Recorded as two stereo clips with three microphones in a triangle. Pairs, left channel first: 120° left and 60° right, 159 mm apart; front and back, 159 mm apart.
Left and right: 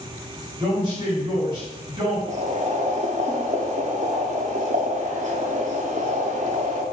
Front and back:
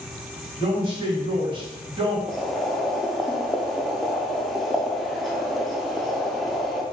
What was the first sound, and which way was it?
A man speaking, 120° right.